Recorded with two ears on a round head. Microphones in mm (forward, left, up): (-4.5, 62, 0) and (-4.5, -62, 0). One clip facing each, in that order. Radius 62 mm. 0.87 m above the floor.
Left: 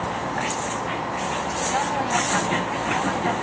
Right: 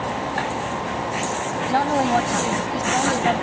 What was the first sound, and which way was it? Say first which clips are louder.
A woman speaking: right 6 dB; 45° right (ahead or behind).